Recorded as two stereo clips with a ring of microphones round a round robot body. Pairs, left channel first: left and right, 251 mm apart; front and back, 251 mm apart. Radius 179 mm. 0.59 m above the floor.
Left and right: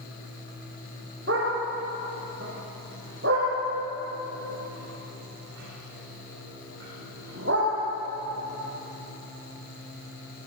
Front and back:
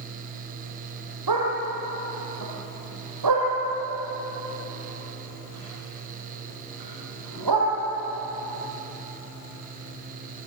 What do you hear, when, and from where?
1.3 s a dog barking: 155° right, 8.5 m